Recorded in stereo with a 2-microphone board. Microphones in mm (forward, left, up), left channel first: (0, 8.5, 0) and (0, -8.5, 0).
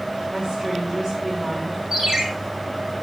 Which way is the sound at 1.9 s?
55° right (ahead or behind).